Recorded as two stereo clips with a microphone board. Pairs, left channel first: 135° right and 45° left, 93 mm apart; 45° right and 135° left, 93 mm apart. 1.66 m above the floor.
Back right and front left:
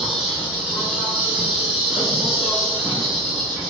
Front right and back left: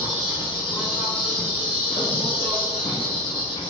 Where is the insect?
35° right, 1.0 m.